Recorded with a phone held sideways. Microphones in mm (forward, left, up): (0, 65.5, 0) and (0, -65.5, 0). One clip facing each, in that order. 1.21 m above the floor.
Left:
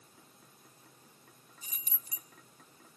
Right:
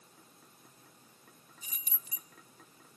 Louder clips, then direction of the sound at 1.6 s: Even; 35° left (ahead or behind).